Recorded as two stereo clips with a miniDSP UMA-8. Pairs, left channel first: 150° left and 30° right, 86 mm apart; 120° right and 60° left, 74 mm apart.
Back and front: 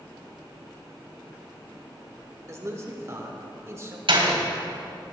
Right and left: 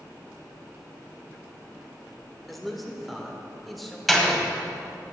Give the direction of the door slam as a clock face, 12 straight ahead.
1 o'clock.